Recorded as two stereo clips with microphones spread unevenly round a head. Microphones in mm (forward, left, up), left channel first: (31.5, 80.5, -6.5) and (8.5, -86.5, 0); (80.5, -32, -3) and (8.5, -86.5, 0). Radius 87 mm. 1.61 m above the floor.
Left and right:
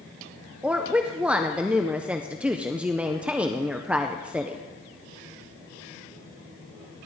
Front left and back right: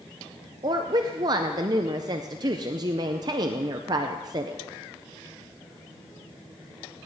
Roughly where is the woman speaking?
Behind.